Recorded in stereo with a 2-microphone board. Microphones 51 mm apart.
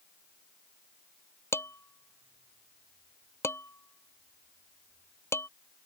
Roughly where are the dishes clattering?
Left.